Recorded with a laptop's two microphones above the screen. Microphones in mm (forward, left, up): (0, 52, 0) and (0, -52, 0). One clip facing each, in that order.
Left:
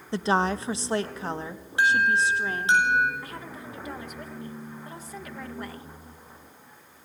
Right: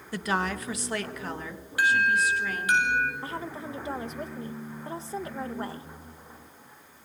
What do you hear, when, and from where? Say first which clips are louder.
0.1 s a woman speaking: left 5 dB; 25° left (ahead or behind), 0.8 m
1.8 s an alarm: left 2 dB; 25° left (ahead or behind), 10 m
3.2 s a woman speaking: right 4 dB; 30° right (ahead or behind), 1.2 m